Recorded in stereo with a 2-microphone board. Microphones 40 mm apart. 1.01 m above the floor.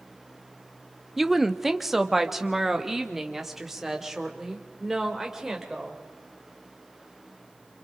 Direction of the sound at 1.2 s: 5° right (ahead or behind).